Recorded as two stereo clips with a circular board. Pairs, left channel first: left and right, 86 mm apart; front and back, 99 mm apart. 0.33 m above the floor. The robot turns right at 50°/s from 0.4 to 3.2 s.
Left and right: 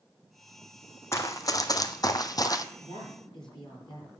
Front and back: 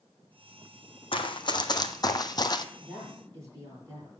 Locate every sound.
1.1 s running footsteps: 30° left, 1.3 m; by 2.7 s 45° left, 0.8 m
2.8 s a woman speaking: 100° left, 7.5 m; by 4.1 s 120° left, 7.5 m